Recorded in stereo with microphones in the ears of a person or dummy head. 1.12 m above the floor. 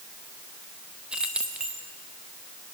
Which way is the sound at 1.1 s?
Centre (ahead or behind).